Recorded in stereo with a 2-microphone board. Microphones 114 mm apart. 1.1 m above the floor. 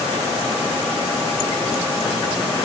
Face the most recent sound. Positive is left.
No sound to turn to.